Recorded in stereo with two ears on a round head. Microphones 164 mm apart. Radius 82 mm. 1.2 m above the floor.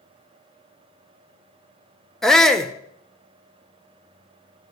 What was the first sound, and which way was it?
A shout, 5° left (ahead or behind).